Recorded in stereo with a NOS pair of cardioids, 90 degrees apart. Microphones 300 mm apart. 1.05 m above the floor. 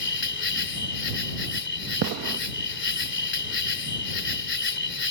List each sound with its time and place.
0.0 s an insect: 40° left
2.0 s a gunshot: 60° right